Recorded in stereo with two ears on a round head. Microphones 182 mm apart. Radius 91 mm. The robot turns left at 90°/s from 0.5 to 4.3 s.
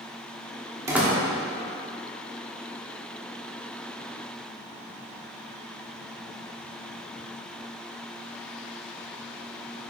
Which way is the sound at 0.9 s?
15° right (ahead or behind).